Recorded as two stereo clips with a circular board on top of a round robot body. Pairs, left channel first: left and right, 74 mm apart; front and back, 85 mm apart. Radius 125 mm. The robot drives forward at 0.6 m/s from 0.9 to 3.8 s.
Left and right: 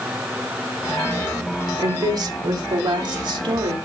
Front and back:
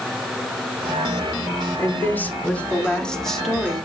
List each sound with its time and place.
1.8 s a woman speaking: 65° right, 2.5 m; by 3.8 s 90° right, 2 m